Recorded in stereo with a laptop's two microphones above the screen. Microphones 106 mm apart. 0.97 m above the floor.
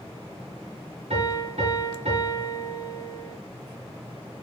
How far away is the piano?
About 6.5 m.